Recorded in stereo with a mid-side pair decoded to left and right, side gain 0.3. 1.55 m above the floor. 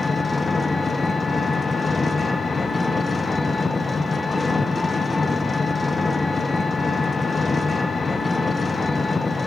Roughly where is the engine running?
Ahead left.